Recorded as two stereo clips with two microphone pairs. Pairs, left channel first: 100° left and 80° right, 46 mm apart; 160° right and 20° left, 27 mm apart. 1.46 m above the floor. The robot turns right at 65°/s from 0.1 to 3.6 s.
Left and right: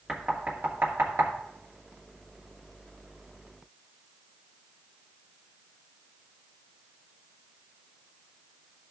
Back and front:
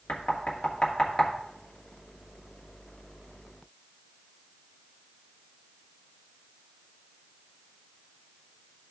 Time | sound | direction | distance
0.1 | knocking | 155° right | 1.7 m